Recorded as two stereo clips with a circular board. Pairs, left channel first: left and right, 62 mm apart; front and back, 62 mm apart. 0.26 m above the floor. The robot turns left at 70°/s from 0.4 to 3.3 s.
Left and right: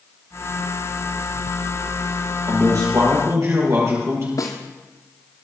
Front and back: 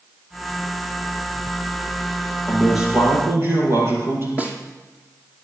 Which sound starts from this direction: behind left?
A snare drum, at 4.4 s.